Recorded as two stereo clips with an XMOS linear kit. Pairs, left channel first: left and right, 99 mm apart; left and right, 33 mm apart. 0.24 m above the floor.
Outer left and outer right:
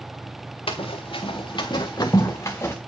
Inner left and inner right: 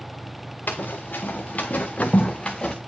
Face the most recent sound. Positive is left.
turn(degrees=25)  # may be behind; listen again after turning